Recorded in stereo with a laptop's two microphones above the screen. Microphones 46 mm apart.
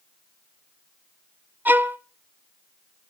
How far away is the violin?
About 0.7 m.